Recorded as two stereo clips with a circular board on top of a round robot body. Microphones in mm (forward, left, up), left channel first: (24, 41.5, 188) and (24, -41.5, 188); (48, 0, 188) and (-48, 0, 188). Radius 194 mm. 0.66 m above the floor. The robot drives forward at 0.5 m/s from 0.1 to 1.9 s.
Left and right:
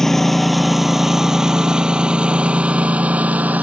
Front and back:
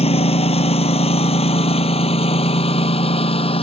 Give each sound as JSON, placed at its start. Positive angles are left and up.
{"t": 0.0, "sound": "a lawn mower", "azimuth_deg": 5}